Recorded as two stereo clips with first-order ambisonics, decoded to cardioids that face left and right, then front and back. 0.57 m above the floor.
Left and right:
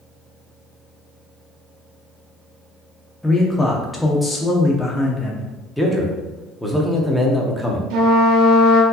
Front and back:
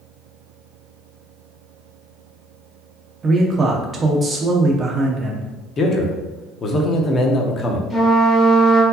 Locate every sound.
3.2 s a man speaking: 170° left, 0.6 m
5.8 s a man speaking: straight ahead, 0.6 m
7.9 s a trumpet: 80° right, 1.6 m